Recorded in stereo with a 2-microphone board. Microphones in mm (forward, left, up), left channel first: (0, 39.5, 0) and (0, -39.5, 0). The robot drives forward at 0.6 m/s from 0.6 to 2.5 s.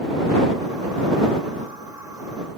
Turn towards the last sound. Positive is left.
No sound to turn to.